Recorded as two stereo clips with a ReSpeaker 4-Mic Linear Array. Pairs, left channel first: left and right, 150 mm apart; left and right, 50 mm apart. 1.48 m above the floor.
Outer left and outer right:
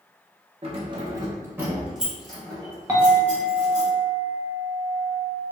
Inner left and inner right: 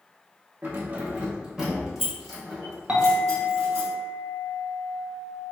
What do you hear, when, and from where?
0.6 s keys jangling: 40° right (ahead or behind), 0.7 m; by 3.9 s 15° left (ahead or behind), 2 m
2.9 s a clink: 20° right (ahead or behind), 0.8 m